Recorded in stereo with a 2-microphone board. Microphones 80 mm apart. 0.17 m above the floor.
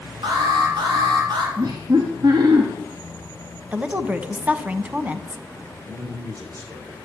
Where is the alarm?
70° right (ahead or behind), 5 m.